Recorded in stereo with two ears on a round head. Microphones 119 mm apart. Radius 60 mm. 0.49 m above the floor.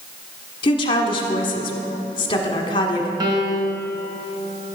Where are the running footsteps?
No running footsteps in this recording.